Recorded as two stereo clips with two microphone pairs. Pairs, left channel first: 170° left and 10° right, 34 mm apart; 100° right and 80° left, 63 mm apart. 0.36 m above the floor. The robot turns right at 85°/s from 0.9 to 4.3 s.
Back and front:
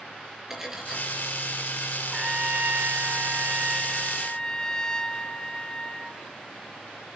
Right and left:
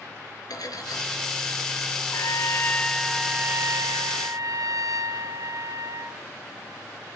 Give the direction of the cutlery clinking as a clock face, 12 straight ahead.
3 o'clock.